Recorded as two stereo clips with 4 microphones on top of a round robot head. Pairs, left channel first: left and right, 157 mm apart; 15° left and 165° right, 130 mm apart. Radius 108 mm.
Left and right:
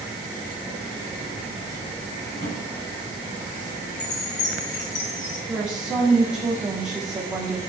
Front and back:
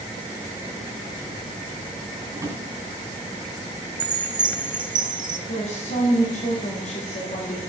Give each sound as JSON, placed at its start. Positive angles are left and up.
{"t": 2.3, "sound": "a drawer", "azimuth_deg": 130, "distance_m": 2.5}
{"t": 4.0, "sound": "a chime", "azimuth_deg": 140, "distance_m": 1.2}
{"t": 5.5, "sound": "a woman speaking", "azimuth_deg": -5, "distance_m": 1.7}